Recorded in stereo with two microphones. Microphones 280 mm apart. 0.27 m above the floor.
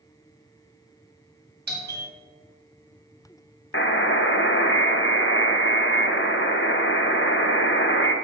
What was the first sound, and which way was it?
A doorbell, 35° right (ahead or behind).